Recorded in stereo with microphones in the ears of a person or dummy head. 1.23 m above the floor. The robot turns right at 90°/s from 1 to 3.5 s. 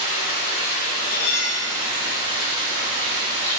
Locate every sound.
0.0 s running water: 105° left, 1.7 m; by 3.6 s 30° right, 1.7 m
1.0 s cutlery clinking: 65° left, 1.5 m; by 1.7 s 120° left, 1.5 m